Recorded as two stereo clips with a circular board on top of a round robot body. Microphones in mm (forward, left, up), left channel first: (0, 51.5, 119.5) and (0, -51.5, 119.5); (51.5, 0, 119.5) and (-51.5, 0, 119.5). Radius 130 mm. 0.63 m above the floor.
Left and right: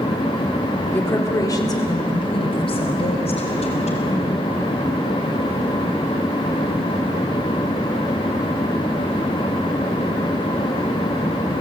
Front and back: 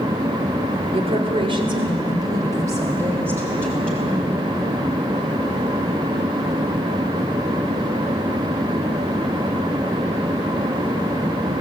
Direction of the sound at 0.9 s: 160° left.